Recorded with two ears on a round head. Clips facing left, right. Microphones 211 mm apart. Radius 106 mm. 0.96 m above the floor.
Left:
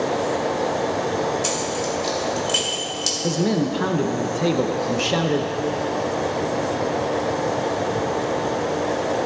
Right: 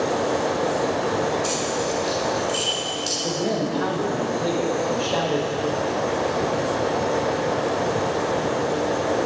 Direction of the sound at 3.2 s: 35° left (ahead or behind).